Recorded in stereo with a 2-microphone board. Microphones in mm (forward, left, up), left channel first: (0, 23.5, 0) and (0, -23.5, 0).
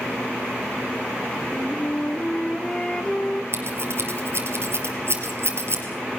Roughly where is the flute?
Centre.